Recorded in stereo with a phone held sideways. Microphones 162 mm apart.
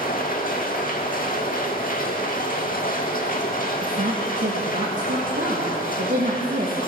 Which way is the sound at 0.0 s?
60° left (ahead or behind).